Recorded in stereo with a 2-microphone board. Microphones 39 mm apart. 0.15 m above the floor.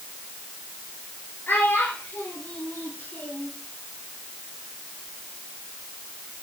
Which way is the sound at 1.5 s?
60° left (ahead or behind).